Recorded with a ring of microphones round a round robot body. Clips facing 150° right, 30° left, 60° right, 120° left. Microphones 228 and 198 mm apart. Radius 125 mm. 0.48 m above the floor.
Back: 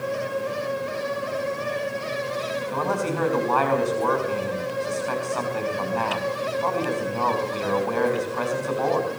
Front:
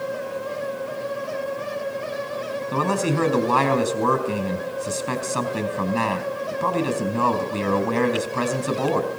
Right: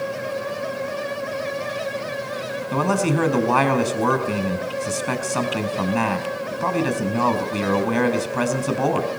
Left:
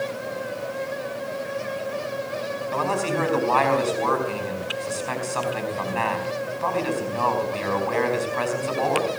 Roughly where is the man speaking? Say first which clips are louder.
Front 5 dB, right 5 dB; ahead right.